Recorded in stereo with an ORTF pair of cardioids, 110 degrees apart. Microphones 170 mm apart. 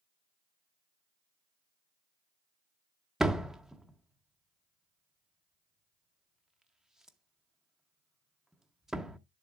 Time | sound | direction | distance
3.2 | a door slam | 5° right | 0.8 m